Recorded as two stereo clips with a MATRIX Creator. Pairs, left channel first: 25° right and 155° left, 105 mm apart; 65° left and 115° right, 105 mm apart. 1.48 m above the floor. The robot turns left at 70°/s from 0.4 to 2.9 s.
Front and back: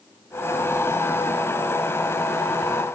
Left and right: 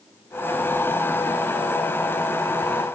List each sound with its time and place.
Only background noise.